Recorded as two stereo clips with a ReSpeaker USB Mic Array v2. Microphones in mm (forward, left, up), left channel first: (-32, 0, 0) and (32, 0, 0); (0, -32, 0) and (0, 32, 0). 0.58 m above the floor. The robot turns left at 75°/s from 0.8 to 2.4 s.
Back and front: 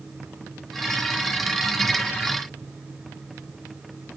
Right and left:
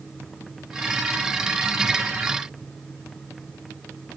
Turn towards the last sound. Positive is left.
No sound to turn to.